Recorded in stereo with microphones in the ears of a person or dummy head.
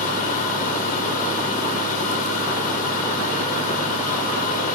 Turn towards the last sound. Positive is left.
turn(degrees=40)  # may be behind; listen again after turning